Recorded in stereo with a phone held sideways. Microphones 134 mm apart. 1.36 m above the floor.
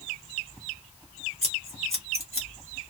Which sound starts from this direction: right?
Scissors, at 1.4 s.